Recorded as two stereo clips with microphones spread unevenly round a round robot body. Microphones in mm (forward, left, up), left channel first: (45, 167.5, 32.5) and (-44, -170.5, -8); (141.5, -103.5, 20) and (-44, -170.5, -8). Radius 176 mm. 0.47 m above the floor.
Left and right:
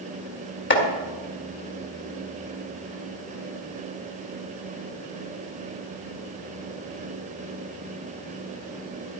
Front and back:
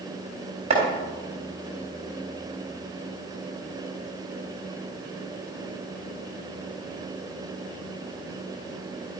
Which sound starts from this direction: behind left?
Chopping, at 0.7 s.